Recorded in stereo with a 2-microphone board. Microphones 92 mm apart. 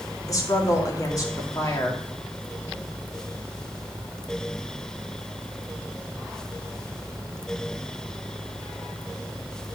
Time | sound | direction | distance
0.3 | a woman speaking | 35° left (ahead or behind) | 2 m